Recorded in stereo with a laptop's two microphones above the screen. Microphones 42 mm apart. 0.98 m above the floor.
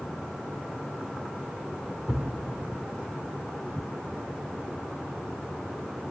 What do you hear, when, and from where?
2.1 s a thud: 10° right (ahead or behind), 0.9 m